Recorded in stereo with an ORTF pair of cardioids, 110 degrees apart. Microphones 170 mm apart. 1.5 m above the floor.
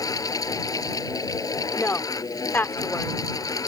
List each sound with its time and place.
0.0 s a fan: 20° left
1.8 s a woman speaking: 10° left